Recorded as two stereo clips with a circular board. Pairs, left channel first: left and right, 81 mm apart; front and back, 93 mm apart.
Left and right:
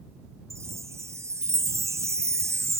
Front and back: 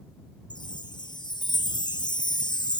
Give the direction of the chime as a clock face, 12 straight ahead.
1 o'clock.